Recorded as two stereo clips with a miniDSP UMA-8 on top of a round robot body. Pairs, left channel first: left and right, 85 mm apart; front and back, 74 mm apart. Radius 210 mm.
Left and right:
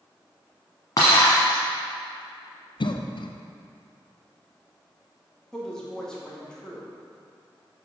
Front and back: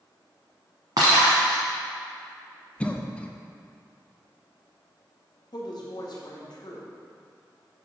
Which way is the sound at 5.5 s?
10° left.